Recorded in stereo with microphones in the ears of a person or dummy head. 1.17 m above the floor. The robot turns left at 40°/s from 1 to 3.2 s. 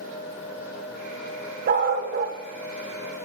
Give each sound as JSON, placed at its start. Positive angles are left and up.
{"t": 1.7, "sound": "a dog barking", "side_deg": -50, "distance_m": 1.0}